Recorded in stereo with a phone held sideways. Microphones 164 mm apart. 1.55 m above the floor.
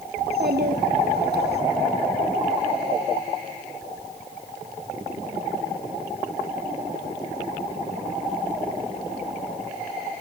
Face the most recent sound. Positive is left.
turn(degrees=-85)